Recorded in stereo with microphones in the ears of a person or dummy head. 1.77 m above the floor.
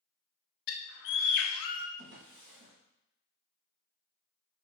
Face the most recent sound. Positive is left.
turn(degrees=-65)  # may be behind; listen again after turning